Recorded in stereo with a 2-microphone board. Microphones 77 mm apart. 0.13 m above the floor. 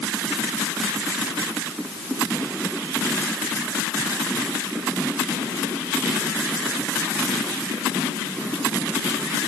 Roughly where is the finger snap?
I don't hear a finger snap.